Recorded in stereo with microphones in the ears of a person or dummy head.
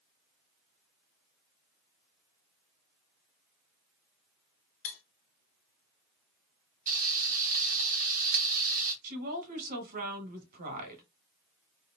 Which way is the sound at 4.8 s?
45° left (ahead or behind).